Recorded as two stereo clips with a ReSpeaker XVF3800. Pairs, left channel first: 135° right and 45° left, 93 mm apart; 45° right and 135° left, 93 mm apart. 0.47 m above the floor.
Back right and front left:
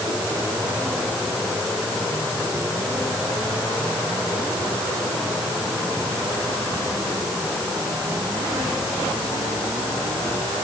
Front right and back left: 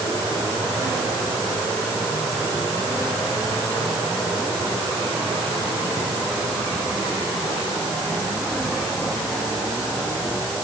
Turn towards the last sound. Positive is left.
No sound to turn to.